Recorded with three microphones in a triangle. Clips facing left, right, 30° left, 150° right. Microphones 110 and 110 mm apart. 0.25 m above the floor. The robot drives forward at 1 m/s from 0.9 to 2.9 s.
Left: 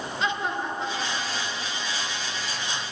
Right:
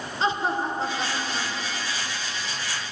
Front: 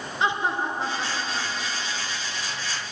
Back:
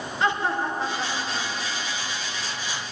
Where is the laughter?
40° right, 3 m; by 2.2 s 65° right, 2 m.